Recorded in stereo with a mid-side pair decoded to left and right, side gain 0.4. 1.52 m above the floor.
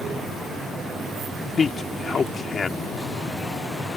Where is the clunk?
I don't hear a clunk.